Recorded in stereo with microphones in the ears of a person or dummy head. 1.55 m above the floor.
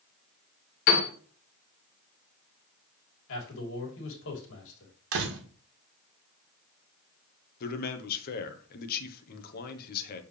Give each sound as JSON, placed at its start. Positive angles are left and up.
{"t": 0.9, "sound": "a piano", "side_deg": 50, "distance_m": 2.0}
{"t": 3.3, "sound": "a man speaking", "side_deg": 75, "distance_m": 2.5}
{"t": 5.1, "sound": "a door slam", "side_deg": -70, "distance_m": 1.3}
{"t": 7.6, "sound": "a man speaking", "side_deg": 50, "distance_m": 1.1}